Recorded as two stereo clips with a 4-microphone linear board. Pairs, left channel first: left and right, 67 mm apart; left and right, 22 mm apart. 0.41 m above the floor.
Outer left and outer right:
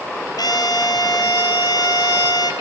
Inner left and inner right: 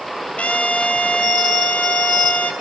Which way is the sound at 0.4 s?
85° left.